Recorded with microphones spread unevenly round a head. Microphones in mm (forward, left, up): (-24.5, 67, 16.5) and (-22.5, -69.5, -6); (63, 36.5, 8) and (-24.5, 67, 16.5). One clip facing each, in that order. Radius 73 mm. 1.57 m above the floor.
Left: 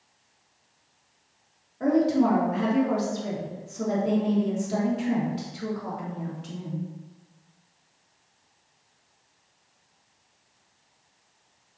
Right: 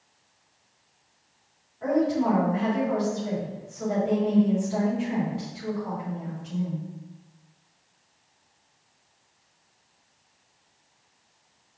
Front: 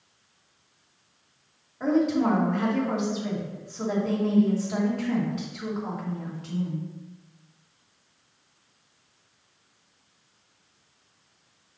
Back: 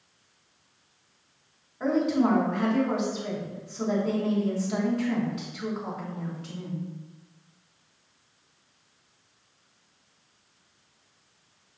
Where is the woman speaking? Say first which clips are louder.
Left 2 dB, front 1 dB; 70° left, 3 m.